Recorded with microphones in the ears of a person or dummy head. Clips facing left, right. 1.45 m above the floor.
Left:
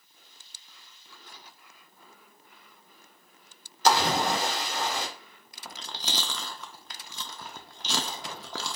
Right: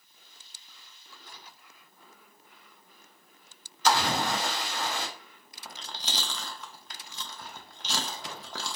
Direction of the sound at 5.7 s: 65° left (ahead or behind).